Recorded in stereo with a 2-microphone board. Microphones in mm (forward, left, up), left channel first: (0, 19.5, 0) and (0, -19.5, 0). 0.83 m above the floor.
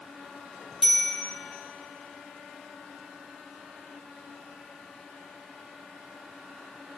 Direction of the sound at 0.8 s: 10° right (ahead or behind).